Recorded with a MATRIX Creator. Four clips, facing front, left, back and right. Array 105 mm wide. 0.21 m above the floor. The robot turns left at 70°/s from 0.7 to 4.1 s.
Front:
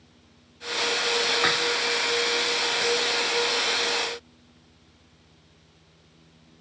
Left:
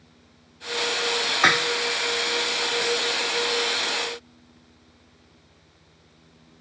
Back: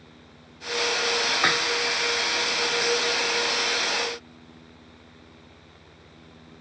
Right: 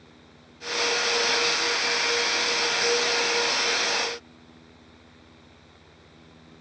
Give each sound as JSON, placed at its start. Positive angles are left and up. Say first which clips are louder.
{"t": 1.4, "sound": "dishes clattering", "louder": "left 6 dB, back 1 dB", "azimuth_deg": 100}